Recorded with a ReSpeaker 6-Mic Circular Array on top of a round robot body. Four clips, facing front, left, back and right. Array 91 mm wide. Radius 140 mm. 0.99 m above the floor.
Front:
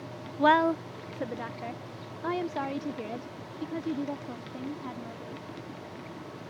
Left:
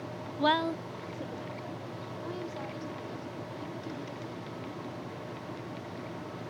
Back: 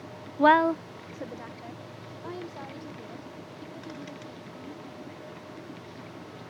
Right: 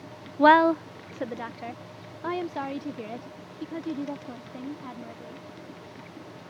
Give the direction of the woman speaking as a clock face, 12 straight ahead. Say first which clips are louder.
Right 10 dB, back 2 dB; 4 o'clock.